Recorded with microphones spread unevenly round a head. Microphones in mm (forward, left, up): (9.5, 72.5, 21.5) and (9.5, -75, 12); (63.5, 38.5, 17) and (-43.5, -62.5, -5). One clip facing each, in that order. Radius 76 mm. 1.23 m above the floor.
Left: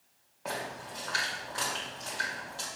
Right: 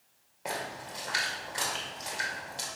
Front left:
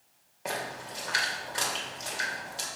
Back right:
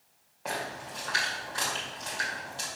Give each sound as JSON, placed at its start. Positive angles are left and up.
{"t": 0.5, "sound": "a splash", "azimuth_deg": -20, "distance_m": 2.0}